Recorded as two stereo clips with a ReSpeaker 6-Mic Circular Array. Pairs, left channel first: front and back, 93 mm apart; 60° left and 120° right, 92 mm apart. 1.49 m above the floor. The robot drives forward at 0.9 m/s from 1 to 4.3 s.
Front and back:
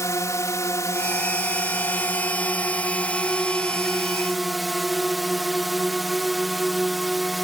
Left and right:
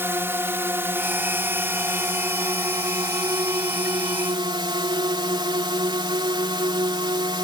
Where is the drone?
55° right; by 7.5 s 90° right.